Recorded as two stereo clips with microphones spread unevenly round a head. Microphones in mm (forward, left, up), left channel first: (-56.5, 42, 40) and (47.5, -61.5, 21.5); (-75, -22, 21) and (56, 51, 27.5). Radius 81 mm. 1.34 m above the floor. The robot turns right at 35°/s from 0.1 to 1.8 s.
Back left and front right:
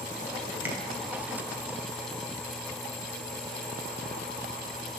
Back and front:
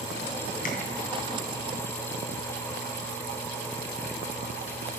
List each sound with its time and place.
0.7 s tapping: 125° right, 1.3 m